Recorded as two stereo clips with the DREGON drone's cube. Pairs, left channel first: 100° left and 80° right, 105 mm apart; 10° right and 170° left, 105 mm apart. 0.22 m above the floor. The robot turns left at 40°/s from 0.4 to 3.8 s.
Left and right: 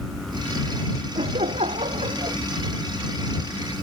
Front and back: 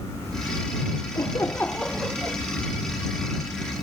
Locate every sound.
1.1 s laughter: 65° right; by 2.4 s 115° right